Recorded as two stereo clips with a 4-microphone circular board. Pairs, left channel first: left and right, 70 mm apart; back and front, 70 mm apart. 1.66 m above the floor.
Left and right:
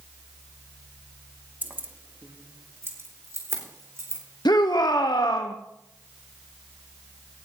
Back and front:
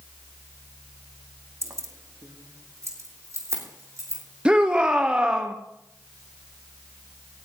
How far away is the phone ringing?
No phone ringing in this recording.